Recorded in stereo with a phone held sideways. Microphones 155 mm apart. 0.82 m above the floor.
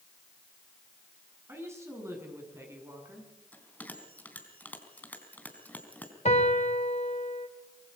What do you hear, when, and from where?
1.5 s a woman speaking: 20° right (ahead or behind), 9.5 m
3.5 s a bell: 10° left (ahead or behind), 4 m
6.2 s a piano: 55° left (ahead or behind), 2.5 m